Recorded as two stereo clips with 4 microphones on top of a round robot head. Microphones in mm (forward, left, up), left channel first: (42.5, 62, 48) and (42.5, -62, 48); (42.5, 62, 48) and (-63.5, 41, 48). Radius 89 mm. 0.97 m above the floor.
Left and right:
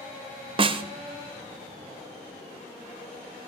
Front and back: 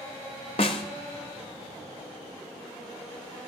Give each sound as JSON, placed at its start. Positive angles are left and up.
{"t": 0.6, "sound": "a snare drum", "azimuth_deg": -45, "distance_m": 0.7}